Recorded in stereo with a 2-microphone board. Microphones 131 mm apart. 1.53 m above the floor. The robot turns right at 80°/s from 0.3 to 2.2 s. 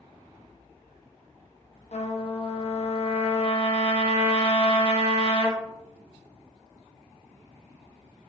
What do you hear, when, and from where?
1.9 s a trumpet: 65° left (ahead or behind), 0.9 m; by 5.6 s 45° left (ahead or behind), 0.9 m